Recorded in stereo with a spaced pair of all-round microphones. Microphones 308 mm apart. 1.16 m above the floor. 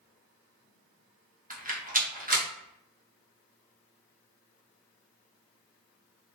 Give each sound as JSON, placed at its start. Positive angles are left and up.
{"t": 1.5, "sound": "a rattle", "side_deg": -30, "distance_m": 0.7}